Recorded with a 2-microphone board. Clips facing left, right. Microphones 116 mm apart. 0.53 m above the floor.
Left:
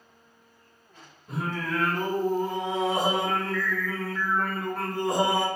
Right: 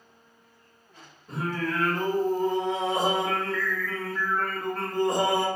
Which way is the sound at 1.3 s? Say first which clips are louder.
Right 1 dB; 5° left (ahead or behind).